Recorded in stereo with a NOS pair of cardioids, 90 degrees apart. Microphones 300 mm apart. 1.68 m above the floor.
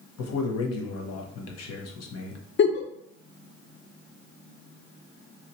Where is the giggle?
40° left, 0.6 m.